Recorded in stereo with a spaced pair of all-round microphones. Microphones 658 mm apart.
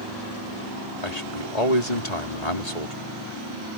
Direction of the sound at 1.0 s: 75° left (ahead or behind).